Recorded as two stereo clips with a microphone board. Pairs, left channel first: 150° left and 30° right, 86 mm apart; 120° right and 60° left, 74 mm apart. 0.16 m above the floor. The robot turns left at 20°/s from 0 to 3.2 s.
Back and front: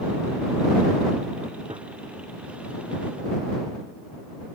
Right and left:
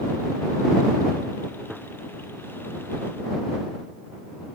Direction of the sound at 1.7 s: 25° right.